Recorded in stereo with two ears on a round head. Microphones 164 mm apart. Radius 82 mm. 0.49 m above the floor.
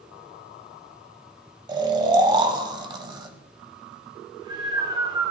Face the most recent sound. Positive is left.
turn(degrees=-25)  # may be behind; listen again after turning